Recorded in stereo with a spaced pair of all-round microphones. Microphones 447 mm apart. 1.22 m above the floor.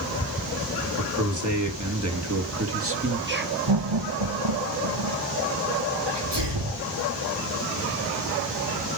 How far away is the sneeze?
About 3.5 m.